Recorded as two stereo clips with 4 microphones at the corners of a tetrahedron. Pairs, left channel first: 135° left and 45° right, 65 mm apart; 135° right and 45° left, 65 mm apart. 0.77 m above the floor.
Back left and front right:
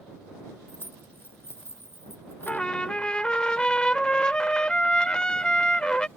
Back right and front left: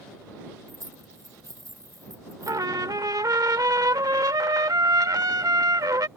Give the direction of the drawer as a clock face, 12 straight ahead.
I don't hear a drawer.